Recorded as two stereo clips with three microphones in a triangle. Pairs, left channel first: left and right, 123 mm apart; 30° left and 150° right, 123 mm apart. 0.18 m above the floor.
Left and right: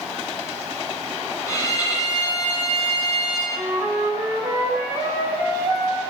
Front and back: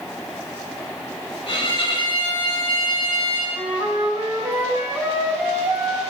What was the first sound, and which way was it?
A violin, 40° left.